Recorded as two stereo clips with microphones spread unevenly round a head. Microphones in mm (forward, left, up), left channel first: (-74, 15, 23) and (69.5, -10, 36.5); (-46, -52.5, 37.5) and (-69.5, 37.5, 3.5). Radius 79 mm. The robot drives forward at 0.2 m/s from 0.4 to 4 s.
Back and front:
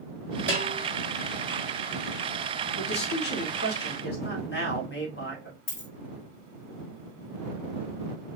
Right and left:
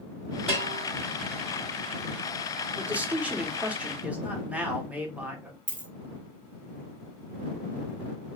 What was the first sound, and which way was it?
A bell, 5° right.